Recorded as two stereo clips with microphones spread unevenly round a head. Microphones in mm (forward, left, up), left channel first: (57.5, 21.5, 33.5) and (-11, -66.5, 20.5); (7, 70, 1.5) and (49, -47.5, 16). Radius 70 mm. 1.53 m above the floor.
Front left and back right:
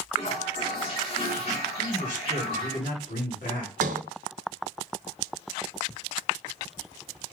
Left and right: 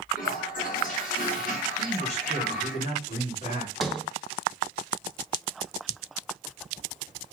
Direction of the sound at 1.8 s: 75° left.